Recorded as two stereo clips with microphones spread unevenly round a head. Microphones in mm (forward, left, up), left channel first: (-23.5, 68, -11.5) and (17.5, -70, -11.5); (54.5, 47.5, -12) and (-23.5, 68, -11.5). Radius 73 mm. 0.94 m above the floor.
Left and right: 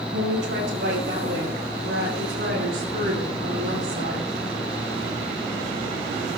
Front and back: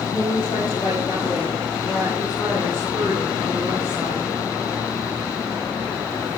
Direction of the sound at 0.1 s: 70° right.